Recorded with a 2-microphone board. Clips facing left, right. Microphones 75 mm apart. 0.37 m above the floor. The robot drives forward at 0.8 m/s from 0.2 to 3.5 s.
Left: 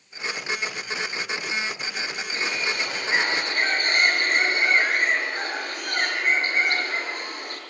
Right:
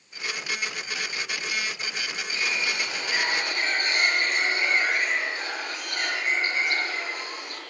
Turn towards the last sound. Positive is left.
turn(degrees=45)  # may be behind; listen again after turning